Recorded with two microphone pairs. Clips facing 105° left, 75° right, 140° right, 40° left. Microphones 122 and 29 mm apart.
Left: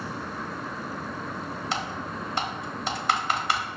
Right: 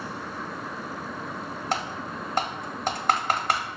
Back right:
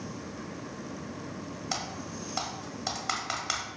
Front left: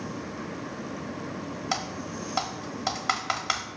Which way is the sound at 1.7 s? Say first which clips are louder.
Right 3 dB, front left 4 dB; 35° right.